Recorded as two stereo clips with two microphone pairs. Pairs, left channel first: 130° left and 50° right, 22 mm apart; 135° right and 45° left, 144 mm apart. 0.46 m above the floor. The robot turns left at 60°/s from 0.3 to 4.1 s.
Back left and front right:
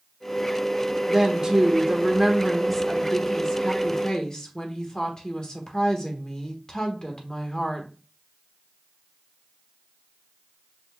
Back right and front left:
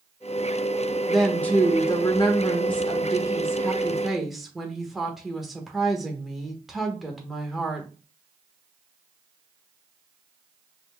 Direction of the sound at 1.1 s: 45° right.